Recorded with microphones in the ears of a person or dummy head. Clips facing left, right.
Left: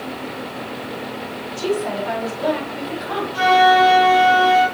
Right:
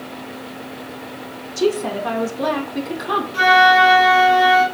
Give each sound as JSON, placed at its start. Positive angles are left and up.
{"t": 1.6, "sound": "a woman speaking", "side_deg": -85, "distance_m": 2.0}
{"t": 3.3, "sound": "a flute", "side_deg": -35, "distance_m": 4.0}